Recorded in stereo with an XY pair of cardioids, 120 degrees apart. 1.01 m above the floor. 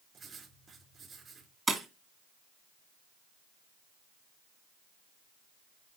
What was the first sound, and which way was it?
Writing, 35° right.